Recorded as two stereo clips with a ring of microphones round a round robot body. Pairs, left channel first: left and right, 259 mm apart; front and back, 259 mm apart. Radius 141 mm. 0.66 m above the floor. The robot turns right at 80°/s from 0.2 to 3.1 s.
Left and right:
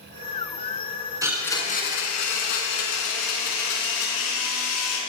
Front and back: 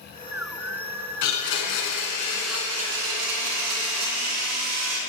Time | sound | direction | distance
1.2 | a blender | 15° right | 3 m